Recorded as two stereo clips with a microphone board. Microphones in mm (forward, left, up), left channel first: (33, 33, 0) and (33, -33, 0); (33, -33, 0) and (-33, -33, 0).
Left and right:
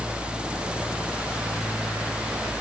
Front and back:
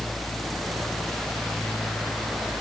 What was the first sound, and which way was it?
Only background noise.